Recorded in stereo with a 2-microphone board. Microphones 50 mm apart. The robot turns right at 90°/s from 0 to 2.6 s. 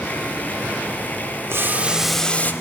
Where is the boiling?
55° right, 0.9 m; by 2.5 s 35° left, 0.9 m.